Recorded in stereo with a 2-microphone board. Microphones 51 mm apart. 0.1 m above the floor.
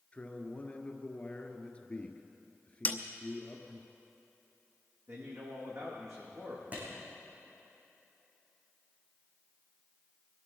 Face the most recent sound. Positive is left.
turn(degrees=-30)  # may be behind; listen again after turning